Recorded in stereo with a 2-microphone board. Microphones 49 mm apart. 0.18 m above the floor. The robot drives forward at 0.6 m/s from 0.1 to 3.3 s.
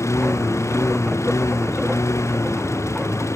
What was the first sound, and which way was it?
A lawn mower, 85° left.